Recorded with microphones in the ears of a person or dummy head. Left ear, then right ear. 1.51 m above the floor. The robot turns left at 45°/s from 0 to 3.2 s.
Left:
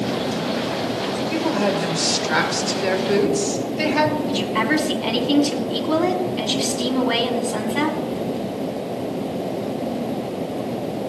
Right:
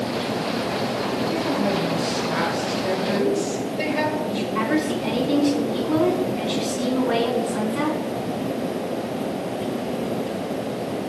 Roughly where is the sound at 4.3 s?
Left.